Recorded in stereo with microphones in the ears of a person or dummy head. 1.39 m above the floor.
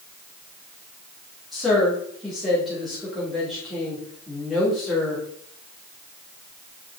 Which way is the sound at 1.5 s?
Centre (ahead or behind).